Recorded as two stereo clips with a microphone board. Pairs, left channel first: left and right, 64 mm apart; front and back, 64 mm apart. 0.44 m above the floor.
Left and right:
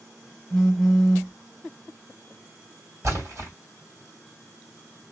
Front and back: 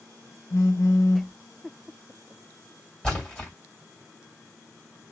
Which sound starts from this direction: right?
A splash, at 3.0 s.